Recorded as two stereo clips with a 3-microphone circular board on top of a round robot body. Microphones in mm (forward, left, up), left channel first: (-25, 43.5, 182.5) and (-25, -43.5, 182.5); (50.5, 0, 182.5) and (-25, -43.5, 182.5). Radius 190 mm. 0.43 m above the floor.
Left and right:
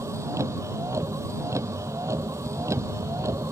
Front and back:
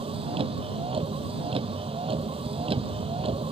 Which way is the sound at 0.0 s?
145° right.